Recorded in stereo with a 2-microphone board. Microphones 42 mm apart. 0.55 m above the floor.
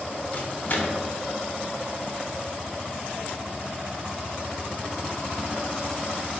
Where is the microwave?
45° left (ahead or behind), 0.6 m.